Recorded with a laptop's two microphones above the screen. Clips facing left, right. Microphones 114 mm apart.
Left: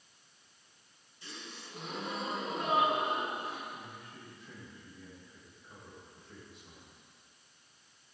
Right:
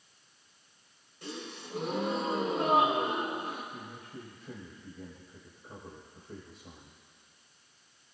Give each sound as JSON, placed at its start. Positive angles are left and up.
{"t": 1.2, "sound": "a gasp", "side_deg": -65, "distance_m": 3.0}
{"t": 3.7, "sound": "a man speaking", "side_deg": -50, "distance_m": 4.0}